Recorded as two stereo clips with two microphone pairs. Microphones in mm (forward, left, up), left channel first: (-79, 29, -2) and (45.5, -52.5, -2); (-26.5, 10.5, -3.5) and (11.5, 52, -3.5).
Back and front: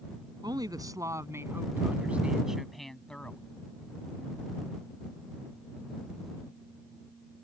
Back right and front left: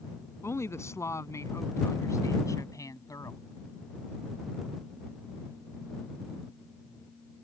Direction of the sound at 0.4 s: 95° right.